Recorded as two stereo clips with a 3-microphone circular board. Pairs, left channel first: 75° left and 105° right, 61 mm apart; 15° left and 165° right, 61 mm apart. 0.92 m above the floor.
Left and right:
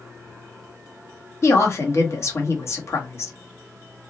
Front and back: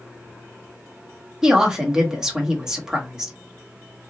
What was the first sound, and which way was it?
A woman speaking, 115° left.